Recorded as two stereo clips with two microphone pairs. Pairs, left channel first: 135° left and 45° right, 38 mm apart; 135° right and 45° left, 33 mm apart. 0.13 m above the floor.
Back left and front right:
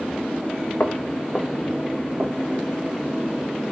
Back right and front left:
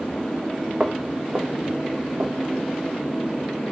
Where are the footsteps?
100° left, 0.6 m; by 2.6 s 25° left, 1.4 m.